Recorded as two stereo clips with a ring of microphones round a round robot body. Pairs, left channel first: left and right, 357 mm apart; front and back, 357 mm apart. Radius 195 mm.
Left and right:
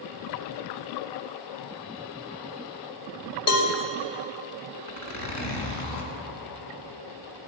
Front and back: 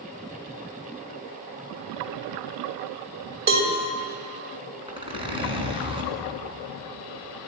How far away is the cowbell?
About 2.5 m.